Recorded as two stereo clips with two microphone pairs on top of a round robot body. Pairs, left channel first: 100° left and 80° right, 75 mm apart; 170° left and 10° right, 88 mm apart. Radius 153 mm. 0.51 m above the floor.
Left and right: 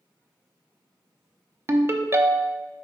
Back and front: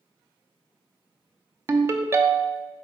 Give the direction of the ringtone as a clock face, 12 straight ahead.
2 o'clock.